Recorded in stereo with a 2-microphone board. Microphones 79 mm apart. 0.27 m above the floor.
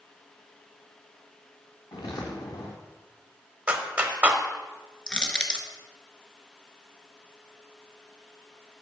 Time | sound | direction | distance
1.9 | footsteps | 55° left (ahead or behind) | 1.6 m
3.7 | a clap | 20° right (ahead or behind) | 0.7 m
5.1 | crushing | 10° left (ahead or behind) | 0.8 m